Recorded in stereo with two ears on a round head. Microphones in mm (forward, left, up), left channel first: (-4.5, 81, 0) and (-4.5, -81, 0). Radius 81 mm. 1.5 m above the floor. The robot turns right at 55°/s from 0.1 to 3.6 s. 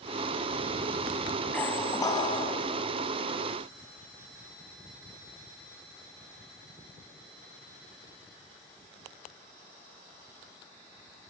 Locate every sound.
1.5 s a squeak: 10° left, 1.6 m; by 2.6 s 70° left, 1.6 m